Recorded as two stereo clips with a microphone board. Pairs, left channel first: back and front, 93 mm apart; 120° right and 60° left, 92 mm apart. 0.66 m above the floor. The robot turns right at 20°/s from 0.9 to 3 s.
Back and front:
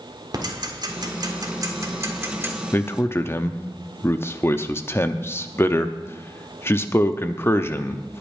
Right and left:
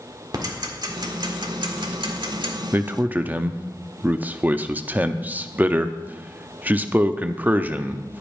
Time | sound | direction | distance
0.3 | ticking | 25° left | 1.7 m
2.7 | a man speaking | 120° left | 0.7 m